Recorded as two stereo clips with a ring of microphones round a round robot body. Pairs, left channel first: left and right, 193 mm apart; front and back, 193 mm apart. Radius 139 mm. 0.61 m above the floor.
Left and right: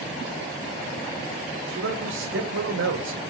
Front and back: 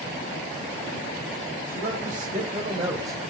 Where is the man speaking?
125° right, 3.5 m; by 3.2 s 100° right, 1.9 m.